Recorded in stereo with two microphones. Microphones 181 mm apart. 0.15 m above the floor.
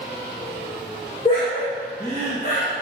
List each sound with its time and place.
1.2 s laughter: 35° left (ahead or behind), 1.8 m; by 2.7 s 45° left (ahead or behind), 2 m